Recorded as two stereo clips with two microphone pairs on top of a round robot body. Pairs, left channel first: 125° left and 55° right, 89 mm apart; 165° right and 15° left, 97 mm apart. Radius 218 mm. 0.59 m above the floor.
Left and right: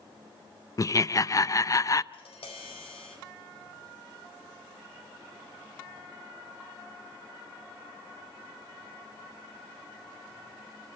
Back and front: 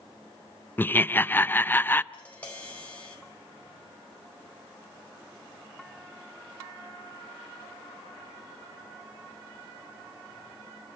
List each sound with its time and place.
0.8 s laughter: 145° left, 0.7 m
2.1 s tapping: 120° left, 4.5 m